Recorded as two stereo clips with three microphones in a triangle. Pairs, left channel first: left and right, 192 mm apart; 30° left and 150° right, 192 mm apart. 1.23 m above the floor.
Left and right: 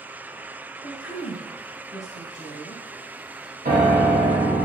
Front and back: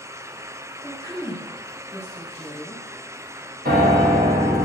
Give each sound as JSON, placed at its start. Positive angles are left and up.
{"t": 0.8, "sound": "a woman speaking", "azimuth_deg": 105, "distance_m": 1.7}
{"t": 3.6, "sound": "a piano", "azimuth_deg": -125, "distance_m": 1.1}